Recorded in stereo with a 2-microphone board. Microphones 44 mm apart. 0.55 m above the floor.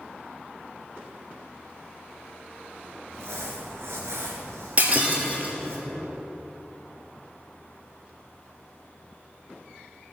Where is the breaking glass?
35° right (ahead or behind), 2.0 m.